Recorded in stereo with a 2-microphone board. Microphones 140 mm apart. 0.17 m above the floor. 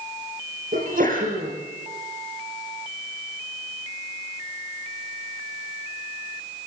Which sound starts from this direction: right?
A sneeze, at 0.7 s.